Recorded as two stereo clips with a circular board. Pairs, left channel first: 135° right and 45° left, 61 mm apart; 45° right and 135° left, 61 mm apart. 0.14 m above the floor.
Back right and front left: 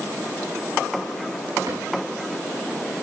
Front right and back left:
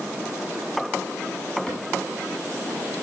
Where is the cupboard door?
45° left, 5.5 m.